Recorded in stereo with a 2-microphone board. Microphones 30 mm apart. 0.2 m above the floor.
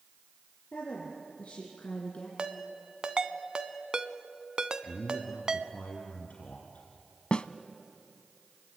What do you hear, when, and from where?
0.7 s a woman speaking: 55° left (ahead or behind), 4.5 m; by 2.3 s 45° left (ahead or behind), 2.5 m
2.4 s a ringtone: 25° right (ahead or behind), 0.8 m
4.8 s a man speaking: 60° left (ahead or behind), 2.5 m
7.3 s a snare drum: 35° left (ahead or behind), 0.6 m